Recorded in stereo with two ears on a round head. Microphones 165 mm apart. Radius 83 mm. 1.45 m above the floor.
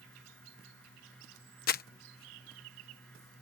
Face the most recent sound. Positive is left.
turn(degrees=50)  # may be behind; listen again after turning